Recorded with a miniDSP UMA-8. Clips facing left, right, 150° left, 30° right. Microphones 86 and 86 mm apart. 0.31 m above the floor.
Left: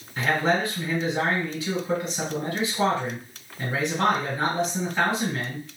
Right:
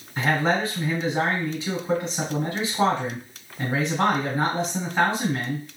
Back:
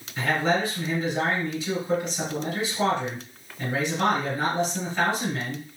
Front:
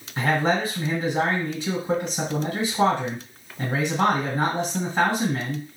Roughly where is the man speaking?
Ahead right.